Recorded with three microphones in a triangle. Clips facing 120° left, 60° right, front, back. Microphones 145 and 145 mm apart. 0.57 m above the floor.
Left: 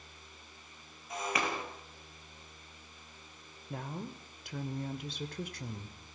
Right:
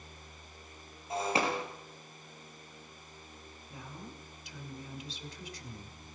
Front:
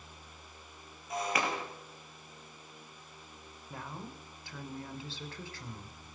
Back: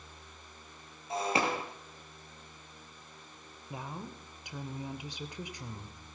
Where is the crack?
No crack in this recording.